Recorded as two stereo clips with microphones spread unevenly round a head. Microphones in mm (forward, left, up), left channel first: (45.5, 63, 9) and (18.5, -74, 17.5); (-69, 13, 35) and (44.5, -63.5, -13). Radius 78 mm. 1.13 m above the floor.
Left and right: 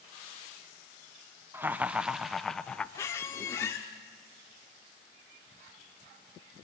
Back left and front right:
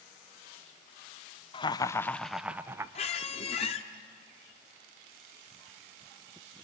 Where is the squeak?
150° left, 1.0 m.